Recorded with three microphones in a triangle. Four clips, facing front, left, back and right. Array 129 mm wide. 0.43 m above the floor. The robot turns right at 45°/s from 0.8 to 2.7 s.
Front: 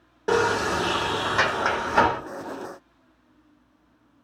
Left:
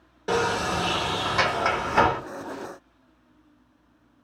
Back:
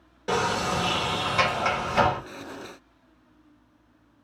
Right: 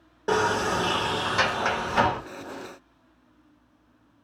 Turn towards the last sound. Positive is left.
turn(degrees=60)